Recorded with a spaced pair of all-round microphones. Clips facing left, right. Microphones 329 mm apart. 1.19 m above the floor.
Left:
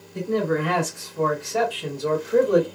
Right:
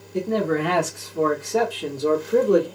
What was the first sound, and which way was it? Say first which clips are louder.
A man speaking: right 1 dB; 85° right.